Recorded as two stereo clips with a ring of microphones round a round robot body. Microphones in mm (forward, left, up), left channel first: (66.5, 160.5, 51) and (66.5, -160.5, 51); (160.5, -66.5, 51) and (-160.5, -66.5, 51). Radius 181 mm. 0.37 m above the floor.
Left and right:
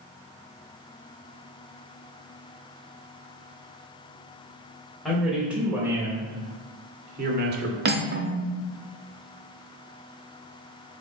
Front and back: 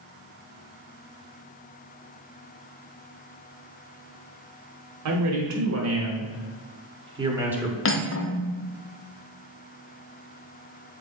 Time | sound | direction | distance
5.0 | a man speaking | straight behind | 1.8 m
7.8 | cutlery clinking | 40° right | 0.7 m